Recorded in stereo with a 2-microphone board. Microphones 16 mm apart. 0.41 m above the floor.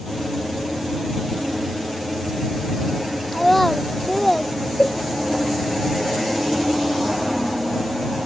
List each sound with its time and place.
3.3 s a child speaking: 10° left (ahead or behind); by 4.5 s 15° left (ahead or behind)
4.8 s a cowbell: 80° left